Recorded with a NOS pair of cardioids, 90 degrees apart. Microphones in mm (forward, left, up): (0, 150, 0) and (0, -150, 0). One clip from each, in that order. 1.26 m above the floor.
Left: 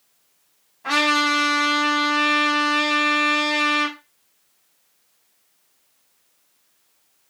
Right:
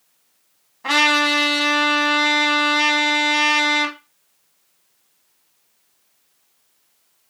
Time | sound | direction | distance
0.8 | a trumpet | 40° right | 1.2 m